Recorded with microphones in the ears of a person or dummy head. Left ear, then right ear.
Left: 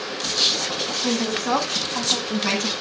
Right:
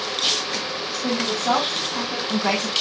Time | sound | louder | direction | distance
0.9 | a woman speaking | even | centre (ahead or behind) | 7.5 m